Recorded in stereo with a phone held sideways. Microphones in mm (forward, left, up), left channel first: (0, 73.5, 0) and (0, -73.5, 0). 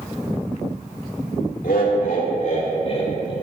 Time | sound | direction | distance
1.6 | laughter | 80° left | 1.8 m